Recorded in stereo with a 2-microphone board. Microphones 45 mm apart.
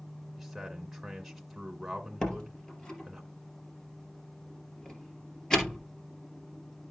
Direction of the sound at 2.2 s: 15° left (ahead or behind).